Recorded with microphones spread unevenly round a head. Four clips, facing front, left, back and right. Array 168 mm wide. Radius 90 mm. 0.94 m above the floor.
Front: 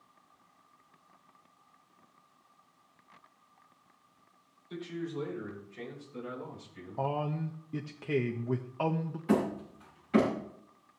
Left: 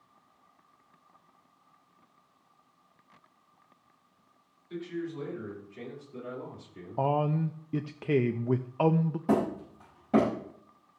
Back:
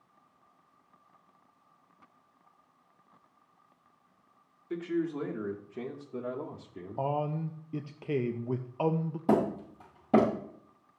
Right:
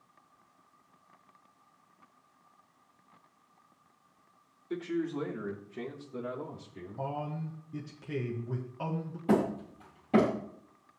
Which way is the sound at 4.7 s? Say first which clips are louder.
Right 3 dB, back 6 dB; 140° right.